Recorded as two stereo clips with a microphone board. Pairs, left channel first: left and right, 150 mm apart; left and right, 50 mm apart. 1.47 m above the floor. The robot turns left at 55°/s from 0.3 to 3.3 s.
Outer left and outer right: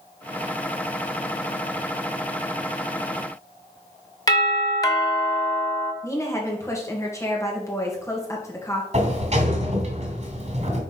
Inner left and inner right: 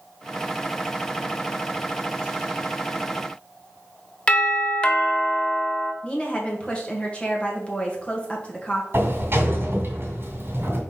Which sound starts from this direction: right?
A sliding door, at 8.9 s.